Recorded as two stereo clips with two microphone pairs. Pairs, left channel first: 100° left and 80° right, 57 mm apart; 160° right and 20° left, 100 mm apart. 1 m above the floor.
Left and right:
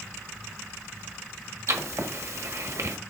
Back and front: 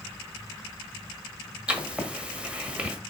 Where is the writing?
60° right, 1.4 m.